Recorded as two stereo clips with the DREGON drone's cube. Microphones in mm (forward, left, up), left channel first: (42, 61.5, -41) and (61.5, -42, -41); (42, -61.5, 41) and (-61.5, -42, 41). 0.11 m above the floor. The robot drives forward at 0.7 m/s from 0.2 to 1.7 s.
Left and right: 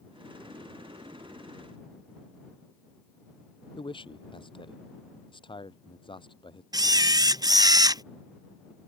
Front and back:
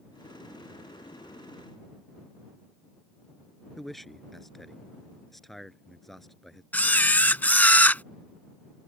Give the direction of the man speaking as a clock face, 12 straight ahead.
9 o'clock.